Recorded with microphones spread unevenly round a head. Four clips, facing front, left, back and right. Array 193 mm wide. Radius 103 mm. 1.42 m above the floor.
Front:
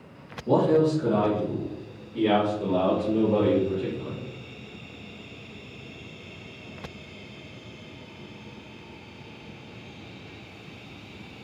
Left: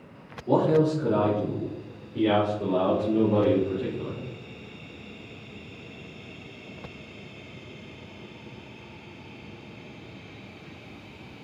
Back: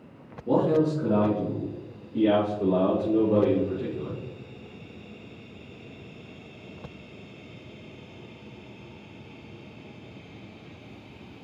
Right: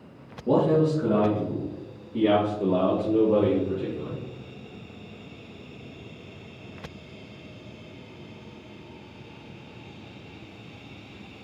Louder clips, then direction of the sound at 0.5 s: Even, front 2 dB; 90° right.